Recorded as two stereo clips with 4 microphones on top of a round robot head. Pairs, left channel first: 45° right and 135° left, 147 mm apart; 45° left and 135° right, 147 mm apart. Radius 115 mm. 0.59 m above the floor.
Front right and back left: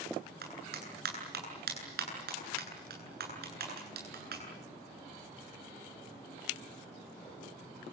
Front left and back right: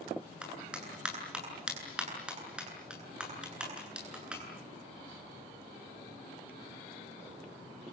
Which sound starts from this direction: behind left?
A clap, at 0.4 s.